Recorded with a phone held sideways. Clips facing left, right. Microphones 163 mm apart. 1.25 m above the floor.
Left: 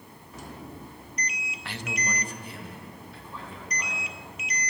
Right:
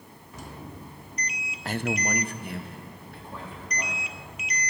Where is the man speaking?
40° right (ahead or behind), 0.5 m; by 4.0 s 55° right (ahead or behind), 4 m.